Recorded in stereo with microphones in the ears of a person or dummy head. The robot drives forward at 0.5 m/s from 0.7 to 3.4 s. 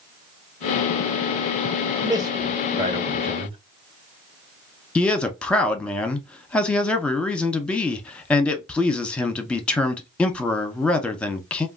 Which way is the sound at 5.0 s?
10° left (ahead or behind).